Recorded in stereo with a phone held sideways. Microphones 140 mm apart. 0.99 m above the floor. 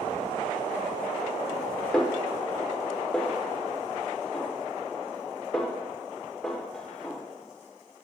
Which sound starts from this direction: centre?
A snare drum, at 1.9 s.